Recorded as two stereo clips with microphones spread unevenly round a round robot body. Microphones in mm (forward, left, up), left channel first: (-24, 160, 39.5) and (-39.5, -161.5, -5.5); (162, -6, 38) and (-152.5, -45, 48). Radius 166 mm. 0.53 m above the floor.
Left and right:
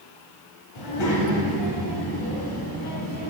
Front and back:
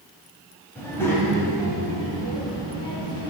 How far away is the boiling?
No boiling in this recording.